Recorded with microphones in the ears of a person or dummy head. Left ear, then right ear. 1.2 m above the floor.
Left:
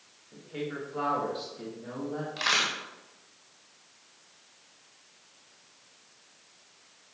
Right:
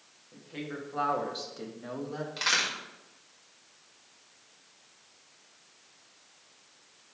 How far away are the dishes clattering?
No dishes clattering in this recording.